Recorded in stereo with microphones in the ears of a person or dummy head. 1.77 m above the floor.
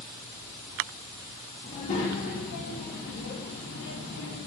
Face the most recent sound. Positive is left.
turn(degrees=60)  # may be behind; listen again after turning